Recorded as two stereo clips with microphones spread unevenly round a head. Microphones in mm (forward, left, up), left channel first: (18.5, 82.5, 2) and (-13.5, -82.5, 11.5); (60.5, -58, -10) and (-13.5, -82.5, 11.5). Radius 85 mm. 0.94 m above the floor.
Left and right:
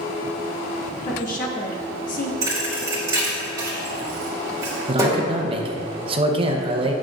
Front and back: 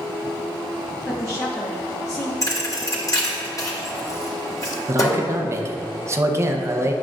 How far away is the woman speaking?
About 1.3 m.